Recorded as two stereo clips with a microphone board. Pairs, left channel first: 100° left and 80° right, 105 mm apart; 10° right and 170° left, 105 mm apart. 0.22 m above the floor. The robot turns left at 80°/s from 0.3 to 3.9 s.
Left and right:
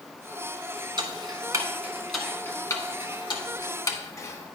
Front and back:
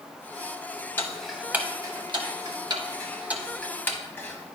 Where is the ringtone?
I don't hear a ringtone.